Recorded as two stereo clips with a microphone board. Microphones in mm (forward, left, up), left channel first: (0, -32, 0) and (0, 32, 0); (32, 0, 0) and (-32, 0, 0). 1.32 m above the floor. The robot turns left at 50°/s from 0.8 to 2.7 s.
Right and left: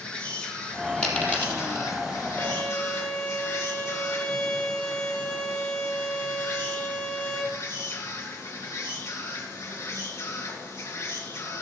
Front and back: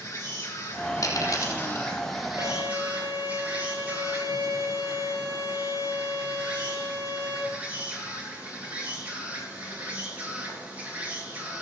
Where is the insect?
20° right, 3 m; by 11.6 s 115° right, 3 m.